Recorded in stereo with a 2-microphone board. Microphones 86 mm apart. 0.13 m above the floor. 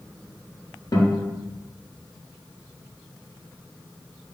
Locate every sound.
0.9 s a guitar: 50° left (ahead or behind), 1.1 m